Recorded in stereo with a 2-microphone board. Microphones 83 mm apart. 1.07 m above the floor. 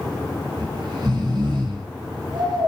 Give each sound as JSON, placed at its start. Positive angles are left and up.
{"t": 0.6, "sound": "snoring", "side_deg": -55, "distance_m": 2.5}